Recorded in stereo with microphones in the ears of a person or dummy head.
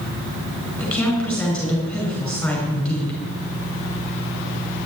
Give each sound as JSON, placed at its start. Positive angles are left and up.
{"t": 0.8, "sound": "a woman speaking", "side_deg": 5, "distance_m": 6.0}